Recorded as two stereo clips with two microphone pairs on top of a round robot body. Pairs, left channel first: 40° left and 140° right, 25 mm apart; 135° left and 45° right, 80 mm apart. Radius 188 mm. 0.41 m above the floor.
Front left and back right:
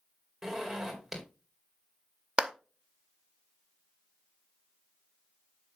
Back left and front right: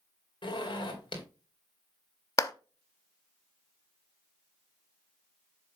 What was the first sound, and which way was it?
A zipper, 140° left.